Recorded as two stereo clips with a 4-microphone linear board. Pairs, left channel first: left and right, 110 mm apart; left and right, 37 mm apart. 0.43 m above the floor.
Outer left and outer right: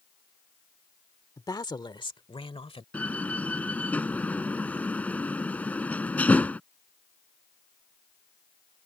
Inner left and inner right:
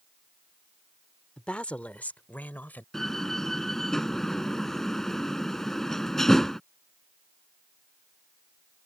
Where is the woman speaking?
30° left (ahead or behind); by 2.8 s 60° left (ahead or behind).